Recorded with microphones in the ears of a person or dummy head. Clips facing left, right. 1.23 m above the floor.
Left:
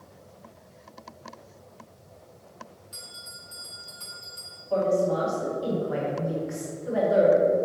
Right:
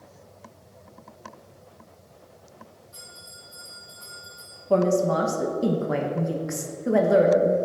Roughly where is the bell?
Left.